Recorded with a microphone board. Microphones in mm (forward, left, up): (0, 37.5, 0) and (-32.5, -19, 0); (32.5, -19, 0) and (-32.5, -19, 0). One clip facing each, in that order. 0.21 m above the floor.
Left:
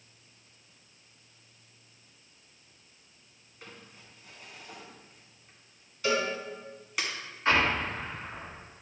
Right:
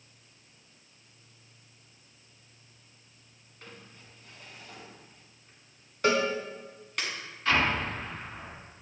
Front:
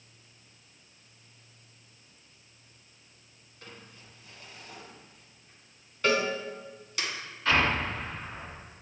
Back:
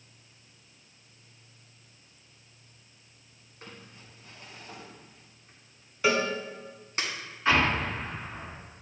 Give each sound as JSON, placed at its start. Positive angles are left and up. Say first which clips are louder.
{"t": 3.6, "sound": "crumpling", "louder": "even, back 1 dB", "azimuth_deg": 140, "distance_m": 1.9}
{"t": 6.0, "sound": "a cowbell", "louder": "right 3 dB, back 1 dB", "azimuth_deg": -100, "distance_m": 0.9}
{"t": 7.5, "sound": "an explosion", "louder": "left 1 dB, back 1 dB", "azimuth_deg": 115, "distance_m": 2.5}